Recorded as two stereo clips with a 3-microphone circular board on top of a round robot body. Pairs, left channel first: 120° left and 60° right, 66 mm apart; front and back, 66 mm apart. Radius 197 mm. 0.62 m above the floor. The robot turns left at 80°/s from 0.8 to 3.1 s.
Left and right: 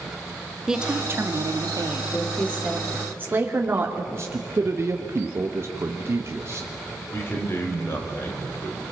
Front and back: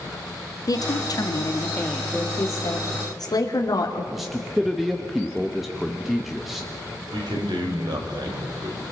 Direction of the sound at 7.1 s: 175° left.